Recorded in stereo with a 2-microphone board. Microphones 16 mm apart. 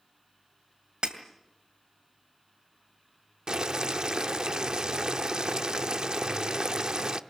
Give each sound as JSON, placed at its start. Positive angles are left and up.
{"t": 1.0, "sound": "breaking glass", "side_deg": -75, "distance_m": 2.5}
{"t": 3.5, "sound": "boiling", "side_deg": -55, "distance_m": 0.8}